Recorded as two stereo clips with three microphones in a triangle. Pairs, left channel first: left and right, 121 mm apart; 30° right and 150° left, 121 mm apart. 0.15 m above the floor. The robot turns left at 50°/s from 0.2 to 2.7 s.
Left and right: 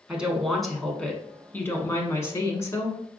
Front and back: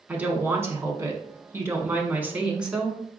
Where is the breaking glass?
No breaking glass in this recording.